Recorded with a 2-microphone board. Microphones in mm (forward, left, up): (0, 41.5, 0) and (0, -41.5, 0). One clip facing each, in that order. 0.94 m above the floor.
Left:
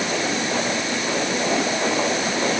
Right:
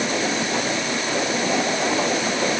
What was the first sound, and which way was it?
Only background noise.